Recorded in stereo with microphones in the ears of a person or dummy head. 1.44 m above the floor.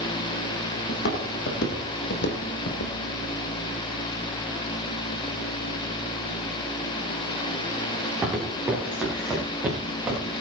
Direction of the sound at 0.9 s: 60° left (ahead or behind).